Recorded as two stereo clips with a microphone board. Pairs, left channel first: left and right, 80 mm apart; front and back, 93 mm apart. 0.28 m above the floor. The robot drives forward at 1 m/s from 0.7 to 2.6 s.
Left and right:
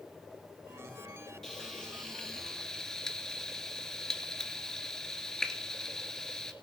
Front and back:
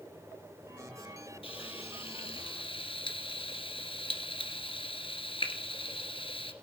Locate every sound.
1.4 s frying: 5° left, 3.5 m